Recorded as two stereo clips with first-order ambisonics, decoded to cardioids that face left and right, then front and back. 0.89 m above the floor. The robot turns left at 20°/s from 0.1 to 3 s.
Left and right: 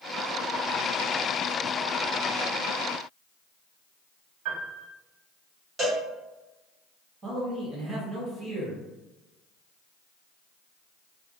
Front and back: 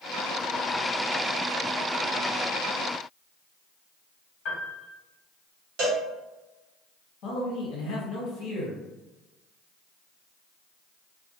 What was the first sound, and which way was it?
A piano, 50° right.